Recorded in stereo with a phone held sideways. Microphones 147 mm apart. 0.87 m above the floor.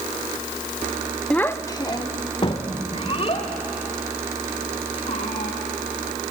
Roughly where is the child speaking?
Centre.